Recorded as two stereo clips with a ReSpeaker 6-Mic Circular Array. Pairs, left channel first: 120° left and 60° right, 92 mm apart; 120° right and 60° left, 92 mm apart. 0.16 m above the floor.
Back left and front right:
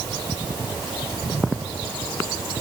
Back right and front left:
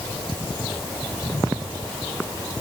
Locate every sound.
Only background noise.